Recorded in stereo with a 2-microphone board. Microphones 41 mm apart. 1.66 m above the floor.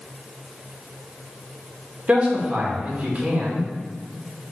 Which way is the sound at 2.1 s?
40° right (ahead or behind).